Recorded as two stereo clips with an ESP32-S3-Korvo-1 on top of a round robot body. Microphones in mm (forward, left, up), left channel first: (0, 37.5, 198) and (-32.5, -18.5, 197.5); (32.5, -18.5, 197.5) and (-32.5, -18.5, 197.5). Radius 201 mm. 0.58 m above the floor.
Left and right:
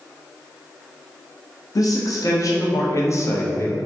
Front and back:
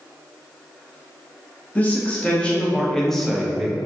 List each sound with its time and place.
1.8 s a man speaking: 65° left, 2.5 m; by 3.8 s 100° left, 1.5 m